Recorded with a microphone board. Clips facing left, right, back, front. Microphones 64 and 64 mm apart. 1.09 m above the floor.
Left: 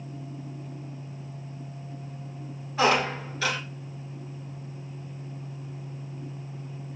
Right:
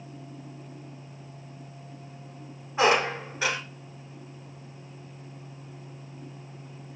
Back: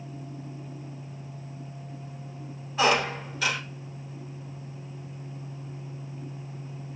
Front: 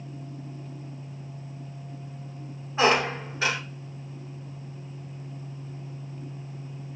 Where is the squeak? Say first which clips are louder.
Right 1 dB, front 2 dB; 35° right, 1.3 m.